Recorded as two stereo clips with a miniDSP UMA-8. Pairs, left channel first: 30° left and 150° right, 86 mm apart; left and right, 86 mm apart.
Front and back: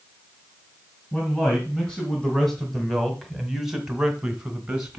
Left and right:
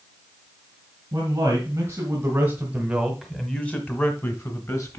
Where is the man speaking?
50° right, 2.5 m; by 5.0 s 130° left, 2.5 m.